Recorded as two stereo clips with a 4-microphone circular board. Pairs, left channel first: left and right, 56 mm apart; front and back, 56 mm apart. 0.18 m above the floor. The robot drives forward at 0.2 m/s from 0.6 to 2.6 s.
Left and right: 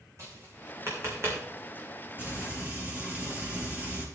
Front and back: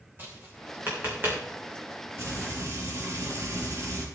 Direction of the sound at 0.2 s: 125° right.